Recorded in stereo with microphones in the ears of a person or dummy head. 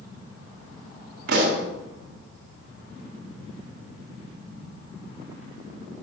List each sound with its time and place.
1.3 s a pop: 55° right (ahead or behind), 1.9 m